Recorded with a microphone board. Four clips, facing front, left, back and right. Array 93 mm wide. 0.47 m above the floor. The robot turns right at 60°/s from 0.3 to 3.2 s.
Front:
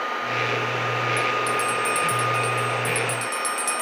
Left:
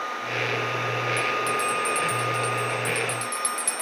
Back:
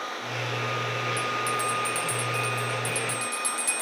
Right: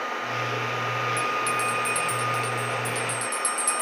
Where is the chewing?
I don't hear chewing.